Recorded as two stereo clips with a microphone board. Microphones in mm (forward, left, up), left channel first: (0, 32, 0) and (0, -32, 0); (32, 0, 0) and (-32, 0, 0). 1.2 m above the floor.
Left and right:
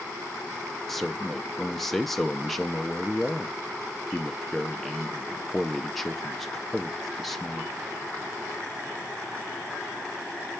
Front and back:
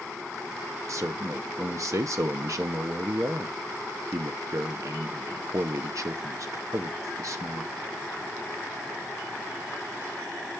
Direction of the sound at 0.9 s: 175° left.